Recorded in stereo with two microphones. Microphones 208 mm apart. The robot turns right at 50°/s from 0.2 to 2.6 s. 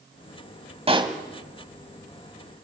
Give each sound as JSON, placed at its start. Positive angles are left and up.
{"t": 0.9, "sound": "a pop", "side_deg": -30, "distance_m": 1.2}